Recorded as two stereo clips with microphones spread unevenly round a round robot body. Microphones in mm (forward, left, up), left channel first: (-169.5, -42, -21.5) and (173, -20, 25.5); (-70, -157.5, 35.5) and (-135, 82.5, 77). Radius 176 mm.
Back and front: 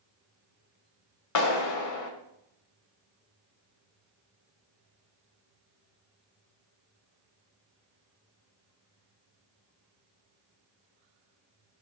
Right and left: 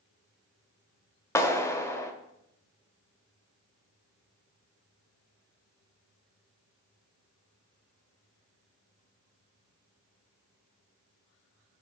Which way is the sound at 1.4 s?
150° right.